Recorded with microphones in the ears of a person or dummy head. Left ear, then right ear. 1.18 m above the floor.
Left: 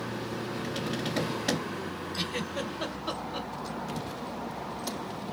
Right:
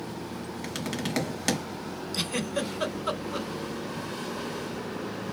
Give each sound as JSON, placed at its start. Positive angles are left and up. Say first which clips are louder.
{"t": 0.6, "sound": "tapping", "louder": "right 2 dB", "side_deg": -65, "distance_m": 1.5}
{"t": 2.1, "sound": "a giggle", "louder": "right 4 dB", "side_deg": -60, "distance_m": 1.5}